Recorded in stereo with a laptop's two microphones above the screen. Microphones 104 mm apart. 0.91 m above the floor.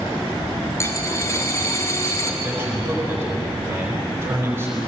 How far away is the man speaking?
About 5 m.